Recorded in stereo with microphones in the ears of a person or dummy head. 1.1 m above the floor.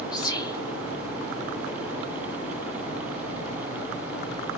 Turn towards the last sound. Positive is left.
turn(degrees=20)  # may be behind; listen again after turning